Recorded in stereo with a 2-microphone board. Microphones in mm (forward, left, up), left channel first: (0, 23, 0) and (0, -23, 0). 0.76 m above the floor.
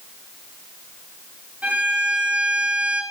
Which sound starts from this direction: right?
A violin, at 1.6 s.